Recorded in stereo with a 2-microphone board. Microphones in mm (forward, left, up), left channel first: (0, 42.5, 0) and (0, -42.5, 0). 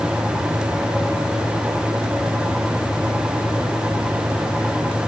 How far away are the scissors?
I don't hear scissors.